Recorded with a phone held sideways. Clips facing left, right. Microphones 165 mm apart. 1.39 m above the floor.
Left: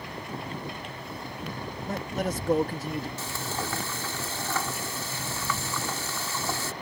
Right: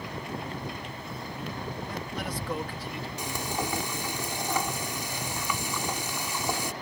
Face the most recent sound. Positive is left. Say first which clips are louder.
# right 2 dB
turn(degrees=-15)  # may be behind; listen again after turning